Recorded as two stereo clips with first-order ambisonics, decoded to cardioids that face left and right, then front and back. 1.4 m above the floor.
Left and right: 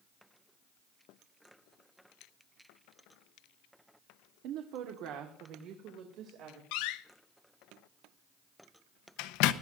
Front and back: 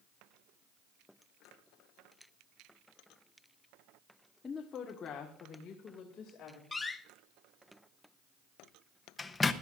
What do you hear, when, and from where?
4.4 s a woman speaking: 75° right, 1.0 m; by 6.6 s 55° right, 3 m
6.7 s a door slam: 80° left, 0.7 m